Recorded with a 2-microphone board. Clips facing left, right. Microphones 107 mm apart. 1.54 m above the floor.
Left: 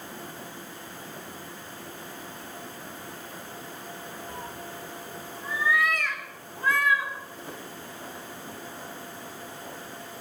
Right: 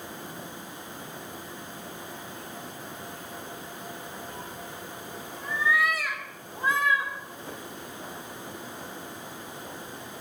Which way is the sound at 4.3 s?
45° left (ahead or behind).